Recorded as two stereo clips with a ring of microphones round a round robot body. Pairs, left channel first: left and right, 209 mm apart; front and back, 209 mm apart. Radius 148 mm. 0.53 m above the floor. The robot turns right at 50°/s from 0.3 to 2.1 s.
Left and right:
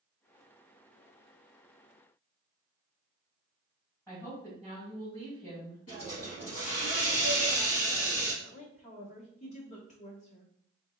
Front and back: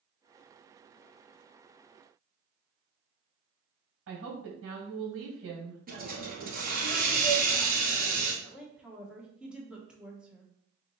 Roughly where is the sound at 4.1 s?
Behind.